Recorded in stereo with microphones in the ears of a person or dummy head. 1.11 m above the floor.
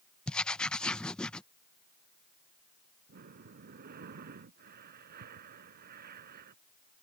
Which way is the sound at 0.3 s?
5° left (ahead or behind).